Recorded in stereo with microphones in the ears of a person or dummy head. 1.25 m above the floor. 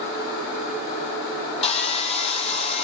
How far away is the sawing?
About 0.9 m.